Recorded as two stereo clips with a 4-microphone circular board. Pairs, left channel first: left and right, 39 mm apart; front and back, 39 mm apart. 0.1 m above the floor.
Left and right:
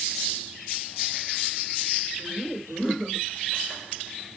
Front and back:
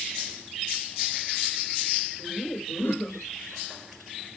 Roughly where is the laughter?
Ahead.